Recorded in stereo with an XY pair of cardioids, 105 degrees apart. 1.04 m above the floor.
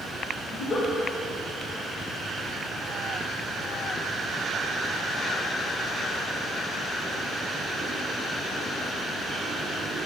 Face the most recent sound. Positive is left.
turn(degrees=50)